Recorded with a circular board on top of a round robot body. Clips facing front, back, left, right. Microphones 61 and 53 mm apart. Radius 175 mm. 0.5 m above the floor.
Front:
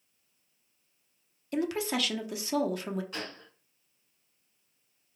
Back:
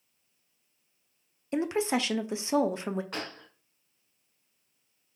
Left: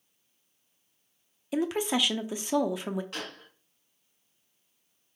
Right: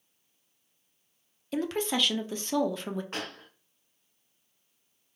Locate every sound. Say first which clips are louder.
1.5 s a woman speaking: back 3 dB, left 2 dB; 155° left, 0.7 m
3.1 s a gunshot: back 2 dB, right 2 dB; 145° right, 0.5 m